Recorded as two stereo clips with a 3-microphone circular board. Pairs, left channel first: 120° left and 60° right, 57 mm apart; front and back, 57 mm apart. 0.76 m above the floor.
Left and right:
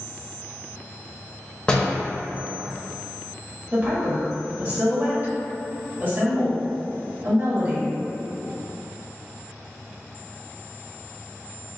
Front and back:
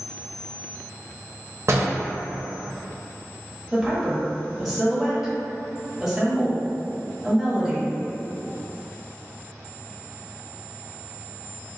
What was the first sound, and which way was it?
A door slam, 170° right.